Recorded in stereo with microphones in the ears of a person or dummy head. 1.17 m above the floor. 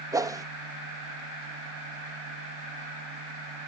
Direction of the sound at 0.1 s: 20° right (ahead or behind).